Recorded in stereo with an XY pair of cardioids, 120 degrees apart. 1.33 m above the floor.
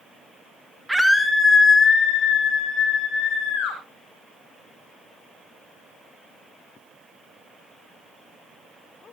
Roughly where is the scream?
Ahead.